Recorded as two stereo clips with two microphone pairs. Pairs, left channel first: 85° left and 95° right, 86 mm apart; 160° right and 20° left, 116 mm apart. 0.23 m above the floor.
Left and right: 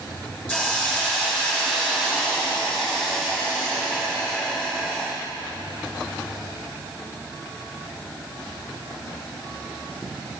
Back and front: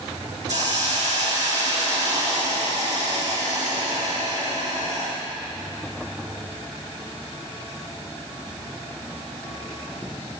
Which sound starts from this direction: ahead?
A hiss, at 0.5 s.